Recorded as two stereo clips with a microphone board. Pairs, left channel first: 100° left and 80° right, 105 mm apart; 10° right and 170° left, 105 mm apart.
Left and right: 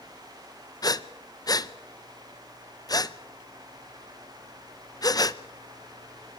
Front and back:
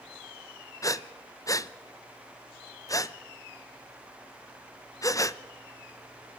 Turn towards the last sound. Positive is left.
turn(degrees=45)